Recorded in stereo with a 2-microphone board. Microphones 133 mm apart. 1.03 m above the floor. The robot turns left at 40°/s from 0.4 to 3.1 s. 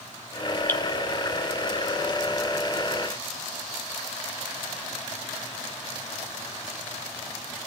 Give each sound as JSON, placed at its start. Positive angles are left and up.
{"t": 0.7, "sound": "dripping", "side_deg": 20, "distance_m": 1.4}